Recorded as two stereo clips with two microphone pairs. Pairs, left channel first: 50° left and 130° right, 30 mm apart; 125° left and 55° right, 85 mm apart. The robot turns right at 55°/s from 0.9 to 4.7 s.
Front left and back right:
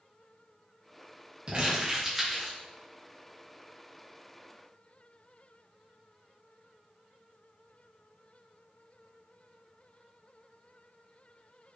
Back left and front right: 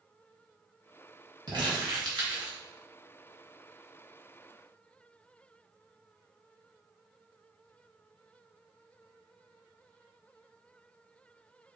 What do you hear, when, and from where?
1.5 s crumpling: 80° right, 1.5 m; by 2.6 s 20° right, 1.5 m